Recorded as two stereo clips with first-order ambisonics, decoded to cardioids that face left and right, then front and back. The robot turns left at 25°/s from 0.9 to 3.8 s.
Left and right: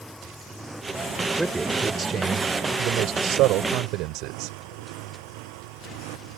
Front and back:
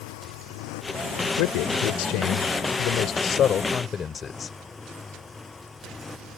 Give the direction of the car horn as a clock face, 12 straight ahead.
No car horn in this recording.